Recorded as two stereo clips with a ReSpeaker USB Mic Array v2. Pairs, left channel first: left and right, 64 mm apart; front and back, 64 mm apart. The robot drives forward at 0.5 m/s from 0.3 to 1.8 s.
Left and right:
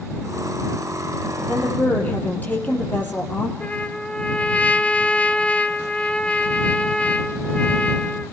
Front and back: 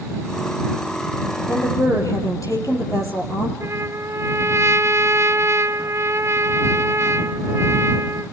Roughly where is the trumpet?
Behind left.